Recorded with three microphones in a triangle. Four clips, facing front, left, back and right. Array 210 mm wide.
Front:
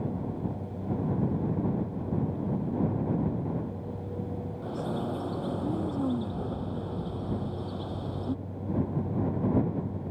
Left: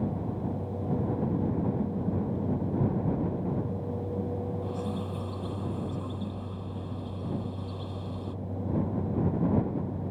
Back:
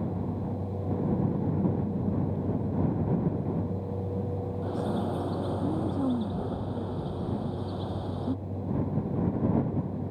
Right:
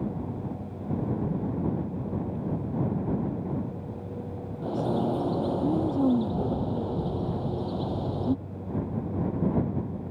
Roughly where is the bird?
Right.